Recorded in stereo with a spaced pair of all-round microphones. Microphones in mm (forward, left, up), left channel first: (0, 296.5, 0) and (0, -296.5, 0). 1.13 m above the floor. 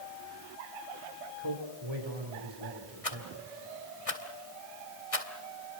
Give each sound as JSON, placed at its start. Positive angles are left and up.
{"t": 1.4, "sound": "a man speaking", "side_deg": -50, "distance_m": 5.0}
{"t": 3.0, "sound": "a rattle", "side_deg": 70, "distance_m": 2.5}